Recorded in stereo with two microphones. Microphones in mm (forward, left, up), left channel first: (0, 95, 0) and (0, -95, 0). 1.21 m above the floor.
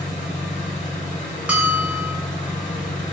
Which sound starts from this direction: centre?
A bell, at 1.5 s.